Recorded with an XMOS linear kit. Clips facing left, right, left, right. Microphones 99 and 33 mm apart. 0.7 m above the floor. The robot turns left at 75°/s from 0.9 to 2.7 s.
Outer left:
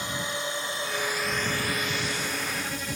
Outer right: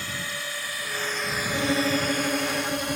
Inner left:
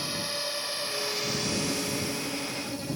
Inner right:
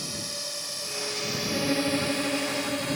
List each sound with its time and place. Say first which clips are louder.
0.0 s a drone: outer left 3 dB, inner left 3 dB; 20° left (ahead or behind); by 3.0 s 65° right (ahead or behind)
1.5 s a violin: outer right 6 dB, inner right 4 dB; 65° right; by 3.0 s 155° right